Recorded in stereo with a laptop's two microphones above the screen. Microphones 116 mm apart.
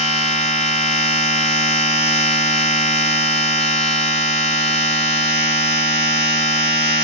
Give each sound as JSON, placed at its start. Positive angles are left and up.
{"t": 0.0, "sound": "a machine running", "side_deg": 65, "distance_m": 1.9}